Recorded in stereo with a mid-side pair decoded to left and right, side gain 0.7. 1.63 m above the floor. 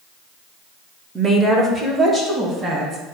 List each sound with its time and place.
1.1 s a woman speaking: 20° right, 1.3 m; by 3.0 s 15° right, 3 m